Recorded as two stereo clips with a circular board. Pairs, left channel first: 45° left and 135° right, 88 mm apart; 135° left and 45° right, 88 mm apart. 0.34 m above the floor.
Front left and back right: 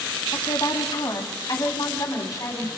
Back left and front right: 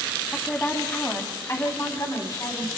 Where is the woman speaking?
65° left, 2.5 m; by 2.7 s 95° left, 3 m.